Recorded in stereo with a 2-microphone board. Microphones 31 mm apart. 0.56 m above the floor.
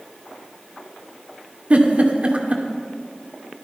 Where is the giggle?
45° right (ahead or behind), 1.9 m.